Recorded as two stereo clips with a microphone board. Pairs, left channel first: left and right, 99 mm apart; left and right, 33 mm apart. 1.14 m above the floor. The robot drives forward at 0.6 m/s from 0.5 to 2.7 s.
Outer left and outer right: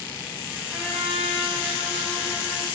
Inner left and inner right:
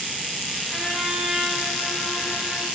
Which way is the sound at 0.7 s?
15° left (ahead or behind).